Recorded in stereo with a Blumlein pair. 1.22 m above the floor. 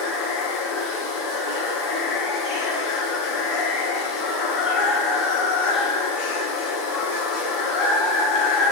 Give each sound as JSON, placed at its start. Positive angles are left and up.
{"t": 0.0, "sound": "running water", "azimuth_deg": 35, "distance_m": 0.7}